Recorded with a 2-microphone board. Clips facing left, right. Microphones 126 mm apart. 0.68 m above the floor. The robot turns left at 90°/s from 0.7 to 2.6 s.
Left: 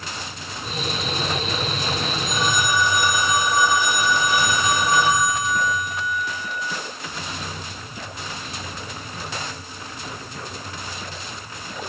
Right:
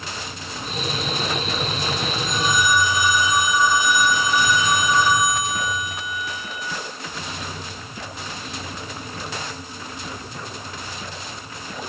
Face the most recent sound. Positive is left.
turn(degrees=70)